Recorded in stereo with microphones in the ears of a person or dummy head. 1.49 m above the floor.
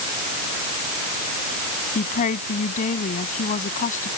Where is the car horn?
No car horn in this recording.